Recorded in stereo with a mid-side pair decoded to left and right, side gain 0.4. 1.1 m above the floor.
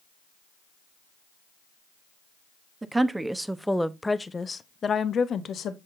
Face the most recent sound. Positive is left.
turn(degrees=70)